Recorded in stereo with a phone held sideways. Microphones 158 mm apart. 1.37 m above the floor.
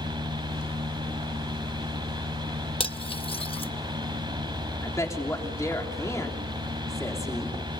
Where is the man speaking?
20° left (ahead or behind), 3.5 m.